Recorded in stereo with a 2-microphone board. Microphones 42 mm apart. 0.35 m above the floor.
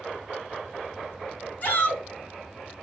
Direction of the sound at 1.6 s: 35° left (ahead or behind).